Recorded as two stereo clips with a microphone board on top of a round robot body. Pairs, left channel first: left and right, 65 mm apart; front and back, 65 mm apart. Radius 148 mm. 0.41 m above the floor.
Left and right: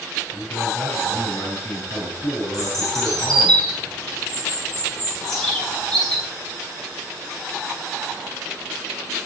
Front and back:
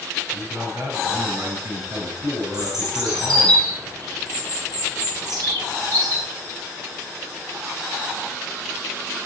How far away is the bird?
About 5 m.